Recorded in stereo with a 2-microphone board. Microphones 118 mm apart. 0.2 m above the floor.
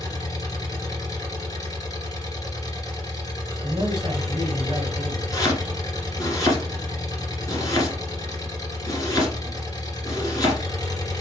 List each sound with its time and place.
0.0 s an engine running: 35° left (ahead or behind), 2 m
3.6 s a man speaking: 40° right (ahead or behind), 2.5 m
5.3 s chopping: 30° left (ahead or behind), 2 m